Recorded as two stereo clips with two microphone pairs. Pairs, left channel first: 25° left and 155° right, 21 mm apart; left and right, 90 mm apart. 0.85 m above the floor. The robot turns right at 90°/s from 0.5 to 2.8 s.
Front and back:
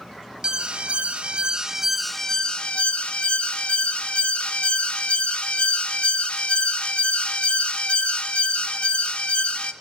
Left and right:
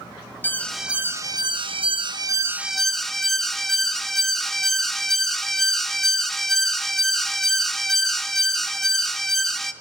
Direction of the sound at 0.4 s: 155° left.